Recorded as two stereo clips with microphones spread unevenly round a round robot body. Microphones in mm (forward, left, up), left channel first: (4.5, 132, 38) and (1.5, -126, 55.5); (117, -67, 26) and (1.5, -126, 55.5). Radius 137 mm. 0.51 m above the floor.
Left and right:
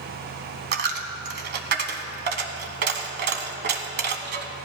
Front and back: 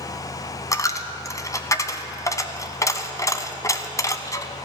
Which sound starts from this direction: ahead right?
A dropped coin, at 0.7 s.